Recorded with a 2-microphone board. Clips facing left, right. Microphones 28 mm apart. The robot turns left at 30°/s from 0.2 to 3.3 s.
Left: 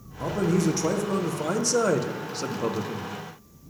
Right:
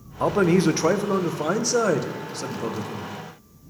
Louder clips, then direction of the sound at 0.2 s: Right 5 dB; 120° right.